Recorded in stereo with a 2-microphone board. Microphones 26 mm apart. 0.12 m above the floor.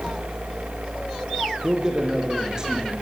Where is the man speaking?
30° right (ahead or behind), 6 m.